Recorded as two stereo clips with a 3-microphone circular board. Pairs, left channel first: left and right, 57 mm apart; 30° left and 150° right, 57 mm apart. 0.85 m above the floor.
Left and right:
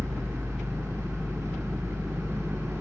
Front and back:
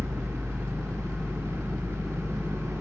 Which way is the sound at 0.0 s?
120° right.